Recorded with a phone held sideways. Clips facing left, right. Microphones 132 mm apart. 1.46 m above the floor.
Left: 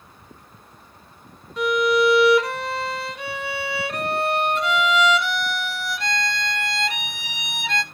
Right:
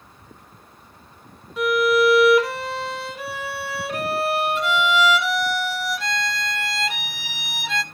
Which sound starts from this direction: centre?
A violin, at 1.6 s.